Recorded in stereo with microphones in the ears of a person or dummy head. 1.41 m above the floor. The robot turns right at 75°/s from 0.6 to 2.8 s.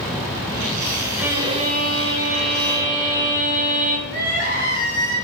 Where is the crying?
55° right (ahead or behind), 3 m.